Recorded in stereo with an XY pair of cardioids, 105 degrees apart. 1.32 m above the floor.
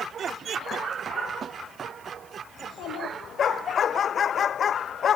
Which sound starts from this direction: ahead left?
A child speaking, at 2.6 s.